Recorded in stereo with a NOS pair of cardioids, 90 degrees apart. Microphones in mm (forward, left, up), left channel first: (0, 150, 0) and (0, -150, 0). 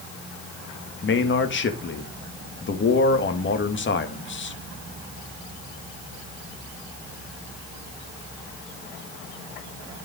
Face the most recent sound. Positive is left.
turn(degrees=40)